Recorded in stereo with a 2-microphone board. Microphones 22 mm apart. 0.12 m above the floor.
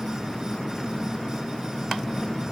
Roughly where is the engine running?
Centre.